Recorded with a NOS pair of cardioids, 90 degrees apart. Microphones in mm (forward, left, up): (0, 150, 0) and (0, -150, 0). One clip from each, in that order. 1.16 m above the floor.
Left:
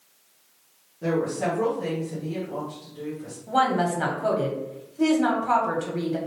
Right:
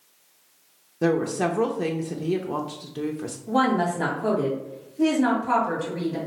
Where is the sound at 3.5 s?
20° left, 1.3 m.